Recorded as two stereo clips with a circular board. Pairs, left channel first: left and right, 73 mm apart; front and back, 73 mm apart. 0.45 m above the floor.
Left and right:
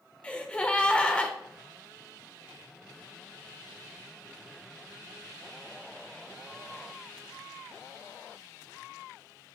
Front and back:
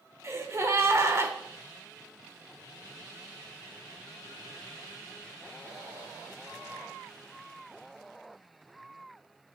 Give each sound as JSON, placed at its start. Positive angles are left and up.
{"t": 0.2, "sound": "a gasp", "azimuth_deg": 155, "distance_m": 1.3}